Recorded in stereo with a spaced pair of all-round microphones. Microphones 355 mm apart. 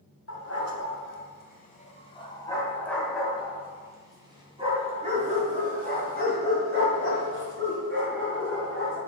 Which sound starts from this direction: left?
A dog barking, at 0.3 s.